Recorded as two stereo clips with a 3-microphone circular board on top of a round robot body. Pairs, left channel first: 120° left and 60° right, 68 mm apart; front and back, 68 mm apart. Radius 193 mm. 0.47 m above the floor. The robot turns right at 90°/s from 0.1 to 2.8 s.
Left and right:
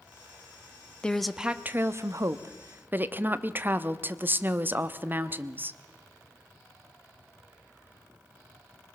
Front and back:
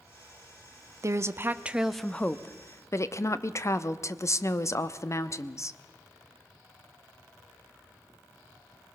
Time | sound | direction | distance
1.0 | a woman speaking | 170° right | 1.1 m